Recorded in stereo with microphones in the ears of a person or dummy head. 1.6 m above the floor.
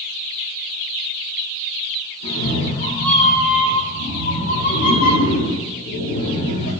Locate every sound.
2.2 s a cat meowing: 70° left (ahead or behind), 4.5 m; by 6.7 s 75° left (ahead or behind), 6.5 m